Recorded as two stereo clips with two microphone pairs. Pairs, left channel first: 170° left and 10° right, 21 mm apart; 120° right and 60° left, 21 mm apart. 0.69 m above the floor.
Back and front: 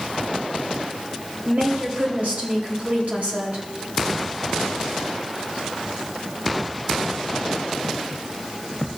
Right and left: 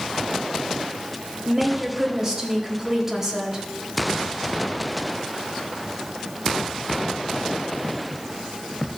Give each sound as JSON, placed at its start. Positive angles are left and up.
{"t": 1.4, "sound": "a woman speaking", "azimuth_deg": -10, "distance_m": 4.0}